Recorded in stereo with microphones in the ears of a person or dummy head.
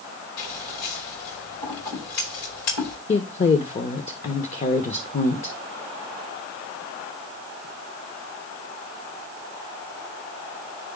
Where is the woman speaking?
40° left (ahead or behind), 0.8 m.